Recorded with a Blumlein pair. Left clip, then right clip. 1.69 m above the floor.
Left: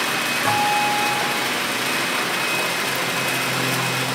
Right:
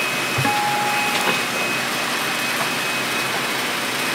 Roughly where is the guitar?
Ahead right.